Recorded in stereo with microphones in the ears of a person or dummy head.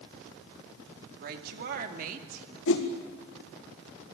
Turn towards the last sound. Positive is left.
turn(degrees=65)  # may be behind; listen again after turning